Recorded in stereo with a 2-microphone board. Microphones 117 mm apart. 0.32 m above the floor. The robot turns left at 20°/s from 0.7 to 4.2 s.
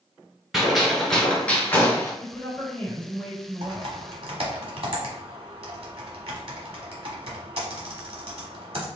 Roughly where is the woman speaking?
Centre.